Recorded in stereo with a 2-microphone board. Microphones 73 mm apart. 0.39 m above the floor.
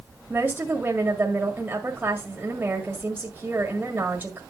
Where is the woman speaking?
25° right (ahead or behind), 1.8 m.